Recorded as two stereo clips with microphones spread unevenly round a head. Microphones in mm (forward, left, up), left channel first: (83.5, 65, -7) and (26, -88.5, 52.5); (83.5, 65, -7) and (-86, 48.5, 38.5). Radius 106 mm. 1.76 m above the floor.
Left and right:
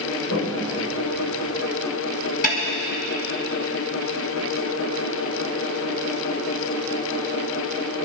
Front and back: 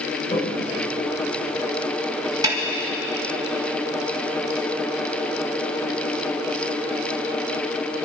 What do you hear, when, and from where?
0.3 s a toilet flushing: 65° left, 2.5 m
2.4 s a snare drum: 135° left, 2.5 m